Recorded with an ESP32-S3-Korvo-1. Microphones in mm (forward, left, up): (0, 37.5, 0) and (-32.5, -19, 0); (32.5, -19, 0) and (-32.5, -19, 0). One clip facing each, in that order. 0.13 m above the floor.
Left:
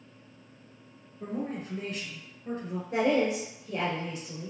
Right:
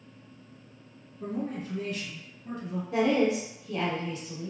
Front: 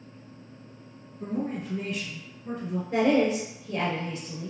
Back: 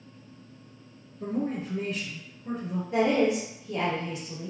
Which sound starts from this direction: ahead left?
A woman speaking, at 2.9 s.